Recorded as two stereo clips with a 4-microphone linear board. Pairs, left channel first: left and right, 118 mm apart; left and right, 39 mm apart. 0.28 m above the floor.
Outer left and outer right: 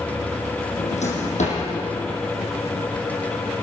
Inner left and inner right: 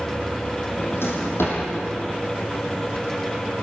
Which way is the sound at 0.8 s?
85° left.